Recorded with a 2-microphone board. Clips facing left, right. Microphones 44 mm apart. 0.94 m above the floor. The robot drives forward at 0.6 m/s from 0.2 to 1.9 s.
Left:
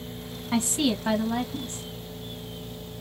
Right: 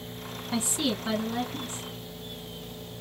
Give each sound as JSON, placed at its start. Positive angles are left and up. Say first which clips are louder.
{"t": 0.5, "sound": "a woman speaking", "louder": "left 4 dB", "side_deg": 55, "distance_m": 1.5}